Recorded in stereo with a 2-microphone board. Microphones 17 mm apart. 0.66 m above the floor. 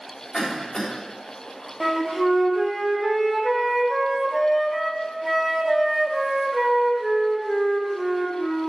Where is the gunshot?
No gunshot in this recording.